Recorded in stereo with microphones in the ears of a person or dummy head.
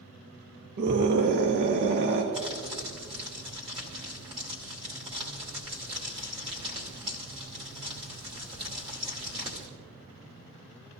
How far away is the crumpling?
About 2.5 m.